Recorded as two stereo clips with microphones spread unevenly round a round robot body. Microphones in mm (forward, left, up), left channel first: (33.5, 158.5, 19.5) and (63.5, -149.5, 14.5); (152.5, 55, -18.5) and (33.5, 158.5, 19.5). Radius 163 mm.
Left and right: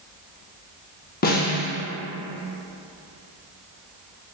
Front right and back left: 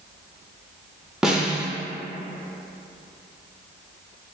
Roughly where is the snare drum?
Ahead left.